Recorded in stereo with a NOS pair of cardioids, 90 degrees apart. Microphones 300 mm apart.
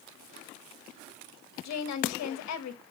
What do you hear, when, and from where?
1.6 s a woman speaking: 65° left, 1.6 m